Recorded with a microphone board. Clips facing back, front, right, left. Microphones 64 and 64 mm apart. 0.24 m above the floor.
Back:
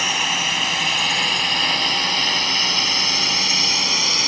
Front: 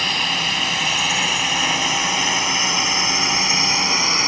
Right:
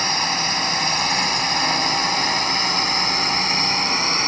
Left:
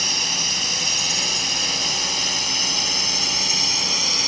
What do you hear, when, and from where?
0.0 s a drone: 100° right; by 4.3 s 55° right